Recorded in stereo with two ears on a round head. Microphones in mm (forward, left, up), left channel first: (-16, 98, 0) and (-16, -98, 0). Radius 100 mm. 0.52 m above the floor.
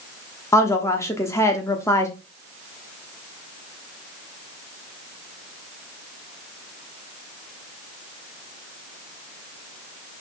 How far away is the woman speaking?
About 0.8 m.